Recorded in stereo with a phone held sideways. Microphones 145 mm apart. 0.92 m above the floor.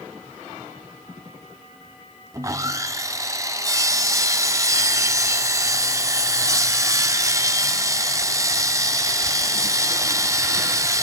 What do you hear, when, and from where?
2.3 s sawing: 25° right (ahead or behind), 0.9 m